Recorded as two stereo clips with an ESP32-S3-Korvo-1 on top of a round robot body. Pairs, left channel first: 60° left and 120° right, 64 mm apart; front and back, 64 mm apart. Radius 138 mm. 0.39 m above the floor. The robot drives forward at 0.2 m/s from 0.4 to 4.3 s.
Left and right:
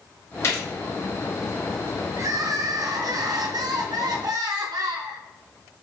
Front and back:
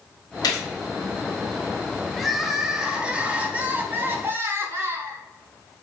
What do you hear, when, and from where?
0.4 s a gunshot: 15° left, 1.2 m
2.2 s crying: 90° right, 0.7 m; by 5.2 s 125° right, 0.8 m